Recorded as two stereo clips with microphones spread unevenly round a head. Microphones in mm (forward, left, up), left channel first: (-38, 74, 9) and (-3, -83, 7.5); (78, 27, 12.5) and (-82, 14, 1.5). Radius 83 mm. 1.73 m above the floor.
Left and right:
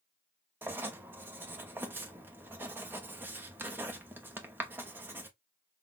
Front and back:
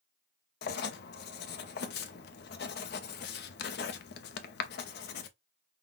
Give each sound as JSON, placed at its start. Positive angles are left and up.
{"t": 0.6, "sound": "writing", "azimuth_deg": 0, "distance_m": 0.6}